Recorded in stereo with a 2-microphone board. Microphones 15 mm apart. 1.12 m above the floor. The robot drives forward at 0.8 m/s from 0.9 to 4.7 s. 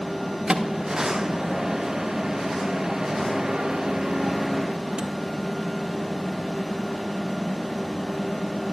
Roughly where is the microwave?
Right.